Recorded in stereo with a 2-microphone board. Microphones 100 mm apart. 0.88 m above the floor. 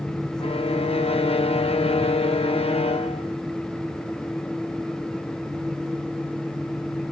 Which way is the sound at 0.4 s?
75° left (ahead or behind).